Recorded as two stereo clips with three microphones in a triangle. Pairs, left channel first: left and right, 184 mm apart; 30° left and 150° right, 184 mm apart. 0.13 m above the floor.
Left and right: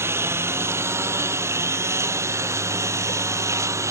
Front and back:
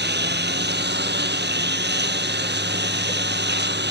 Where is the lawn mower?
165° right.